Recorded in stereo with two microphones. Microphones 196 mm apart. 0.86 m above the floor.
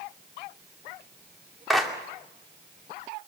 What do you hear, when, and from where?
1.7 s a clap: centre (ahead or behind), 2.5 m